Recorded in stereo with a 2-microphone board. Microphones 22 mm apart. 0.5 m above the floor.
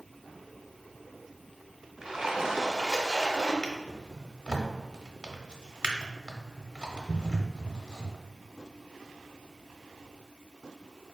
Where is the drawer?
35° right (ahead or behind), 0.7 m.